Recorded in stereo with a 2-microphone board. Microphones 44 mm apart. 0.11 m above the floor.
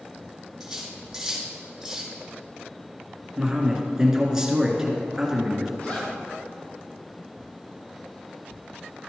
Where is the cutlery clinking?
10° right (ahead or behind), 2.5 m.